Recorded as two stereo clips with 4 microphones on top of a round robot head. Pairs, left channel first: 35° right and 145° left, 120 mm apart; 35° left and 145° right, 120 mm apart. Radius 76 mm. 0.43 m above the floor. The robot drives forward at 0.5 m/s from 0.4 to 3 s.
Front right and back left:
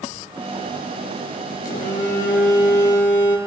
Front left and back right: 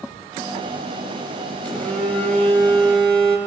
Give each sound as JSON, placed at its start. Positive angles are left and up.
{"t": 1.6, "sound": "a phone buzzing", "azimuth_deg": -45, "distance_m": 8.5}